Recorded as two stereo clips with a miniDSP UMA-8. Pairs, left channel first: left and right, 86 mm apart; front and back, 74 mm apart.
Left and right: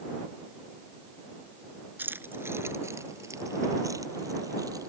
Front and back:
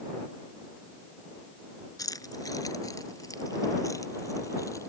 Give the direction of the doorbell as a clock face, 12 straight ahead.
I don't hear a doorbell.